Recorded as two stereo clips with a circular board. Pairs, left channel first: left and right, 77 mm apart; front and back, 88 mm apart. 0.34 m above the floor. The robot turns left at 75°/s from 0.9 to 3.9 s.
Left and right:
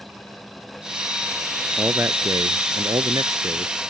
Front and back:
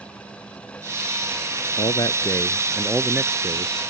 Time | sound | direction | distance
1.8 | a man speaking | 15° right | ?